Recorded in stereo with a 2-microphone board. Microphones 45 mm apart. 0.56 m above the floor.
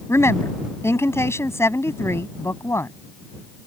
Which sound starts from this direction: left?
A woman speaking, at 0.1 s.